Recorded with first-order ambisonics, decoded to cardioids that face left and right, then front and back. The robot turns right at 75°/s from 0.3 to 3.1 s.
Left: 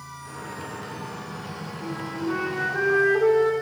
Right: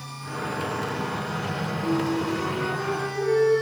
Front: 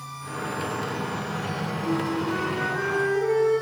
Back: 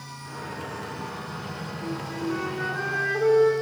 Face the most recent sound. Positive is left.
turn(degrees=120)